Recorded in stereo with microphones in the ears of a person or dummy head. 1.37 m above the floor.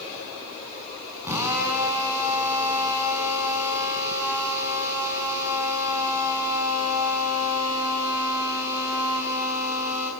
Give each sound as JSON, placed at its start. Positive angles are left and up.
{"t": 1.2, "sound": "a drill", "side_deg": -10, "distance_m": 5.5}